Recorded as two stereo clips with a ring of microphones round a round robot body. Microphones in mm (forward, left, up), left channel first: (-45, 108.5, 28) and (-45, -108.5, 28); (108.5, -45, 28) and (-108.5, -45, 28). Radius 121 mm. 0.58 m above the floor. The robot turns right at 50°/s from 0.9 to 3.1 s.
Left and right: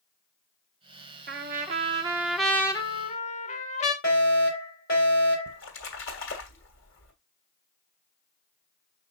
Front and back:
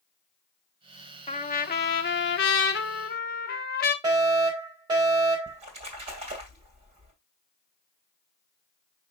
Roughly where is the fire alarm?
Left.